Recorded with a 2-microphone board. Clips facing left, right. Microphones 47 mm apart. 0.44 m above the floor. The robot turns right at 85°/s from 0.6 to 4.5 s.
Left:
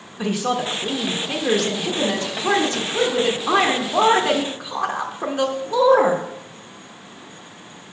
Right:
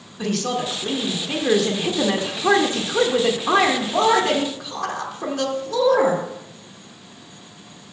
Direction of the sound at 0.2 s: 15° left (ahead or behind).